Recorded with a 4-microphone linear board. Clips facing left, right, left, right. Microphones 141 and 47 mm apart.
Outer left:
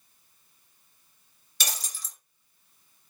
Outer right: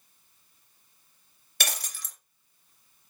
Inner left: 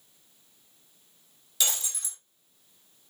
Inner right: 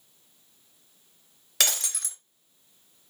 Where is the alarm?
No alarm in this recording.